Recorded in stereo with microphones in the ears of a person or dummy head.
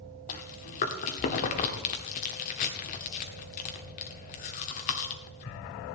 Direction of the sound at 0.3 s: 40° left (ahead or behind).